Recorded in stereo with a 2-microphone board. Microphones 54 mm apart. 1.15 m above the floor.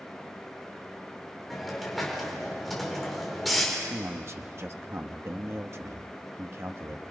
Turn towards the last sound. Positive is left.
turn(degrees=-50)  # may be behind; listen again after turning